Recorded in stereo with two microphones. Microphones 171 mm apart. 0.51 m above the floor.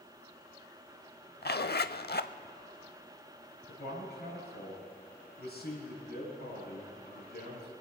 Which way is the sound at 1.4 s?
75° left (ahead or behind).